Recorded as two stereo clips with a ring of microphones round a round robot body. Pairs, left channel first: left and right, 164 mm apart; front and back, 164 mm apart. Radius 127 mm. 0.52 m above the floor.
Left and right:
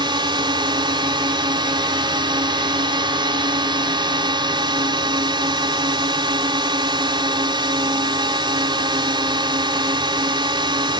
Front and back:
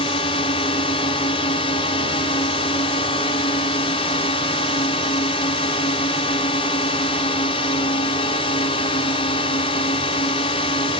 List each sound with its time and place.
0.0 s a drone: 45° right